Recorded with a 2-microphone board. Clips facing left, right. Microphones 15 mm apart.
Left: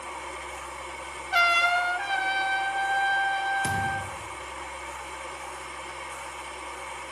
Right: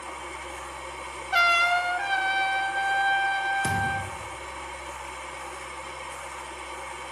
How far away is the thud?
About 4 m.